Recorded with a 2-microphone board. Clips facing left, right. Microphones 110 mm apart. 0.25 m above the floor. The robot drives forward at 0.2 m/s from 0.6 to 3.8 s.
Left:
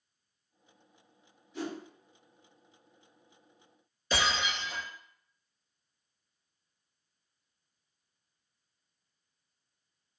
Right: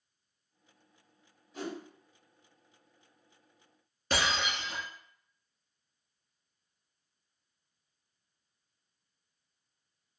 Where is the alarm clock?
I don't hear an alarm clock.